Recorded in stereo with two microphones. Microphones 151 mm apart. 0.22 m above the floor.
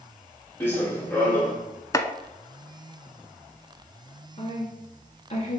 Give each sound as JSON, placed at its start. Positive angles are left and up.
{"t": 0.6, "sound": "running footsteps", "side_deg": 15, "distance_m": 3.0}
{"t": 1.9, "sound": "chopping", "side_deg": 20, "distance_m": 0.6}
{"t": 4.4, "sound": "a woman speaking", "side_deg": 45, "distance_m": 3.5}